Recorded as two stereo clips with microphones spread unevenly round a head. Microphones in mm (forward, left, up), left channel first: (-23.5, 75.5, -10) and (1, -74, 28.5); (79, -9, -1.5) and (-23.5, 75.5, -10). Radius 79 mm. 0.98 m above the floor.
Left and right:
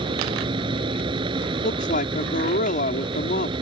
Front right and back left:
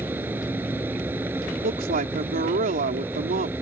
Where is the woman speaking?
130° left.